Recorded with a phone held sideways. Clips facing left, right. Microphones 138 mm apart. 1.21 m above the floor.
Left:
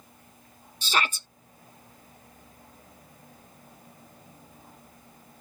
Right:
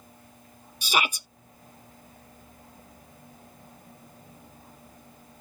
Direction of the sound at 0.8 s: 15° right (ahead or behind).